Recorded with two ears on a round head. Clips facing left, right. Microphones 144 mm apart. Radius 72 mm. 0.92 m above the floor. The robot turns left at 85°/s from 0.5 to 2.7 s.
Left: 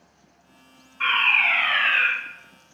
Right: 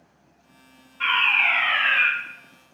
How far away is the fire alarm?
About 1.3 m.